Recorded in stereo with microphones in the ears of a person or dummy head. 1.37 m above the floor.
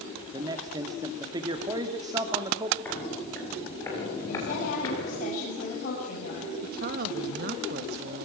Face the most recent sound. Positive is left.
turn(degrees=-60)  # may be behind; listen again after turning